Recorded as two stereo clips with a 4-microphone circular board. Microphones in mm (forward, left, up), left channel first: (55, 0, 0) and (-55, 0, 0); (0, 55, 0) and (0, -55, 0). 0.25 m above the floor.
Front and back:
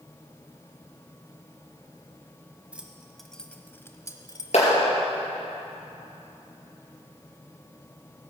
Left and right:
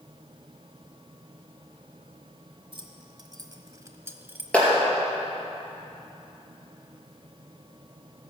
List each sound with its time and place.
2.7 s keys jangling: 105° right, 1.1 m; by 4.4 s 25° right, 1.0 m
4.5 s a clap: 10° left, 4.5 m